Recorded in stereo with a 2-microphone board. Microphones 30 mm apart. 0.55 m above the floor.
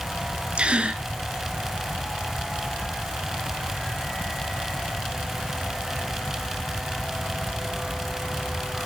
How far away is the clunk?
I don't hear a clunk.